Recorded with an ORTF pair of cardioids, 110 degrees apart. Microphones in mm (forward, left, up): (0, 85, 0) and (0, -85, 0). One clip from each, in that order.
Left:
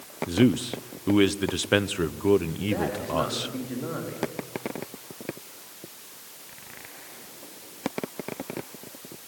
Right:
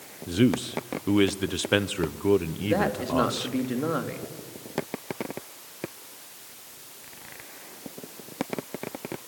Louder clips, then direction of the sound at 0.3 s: Left 1 dB; 5° left.